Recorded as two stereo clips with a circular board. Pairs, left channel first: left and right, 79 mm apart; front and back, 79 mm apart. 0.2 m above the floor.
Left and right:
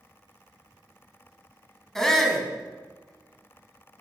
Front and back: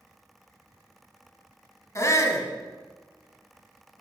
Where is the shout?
10° left, 1.4 m.